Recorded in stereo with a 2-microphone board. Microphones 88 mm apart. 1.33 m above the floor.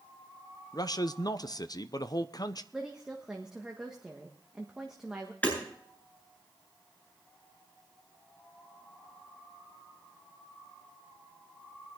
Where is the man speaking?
50° left (ahead or behind), 0.7 m.